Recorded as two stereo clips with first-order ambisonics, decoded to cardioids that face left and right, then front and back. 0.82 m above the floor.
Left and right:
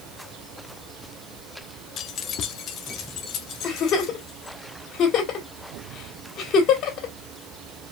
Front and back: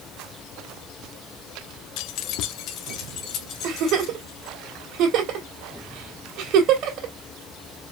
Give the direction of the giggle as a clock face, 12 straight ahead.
7 o'clock.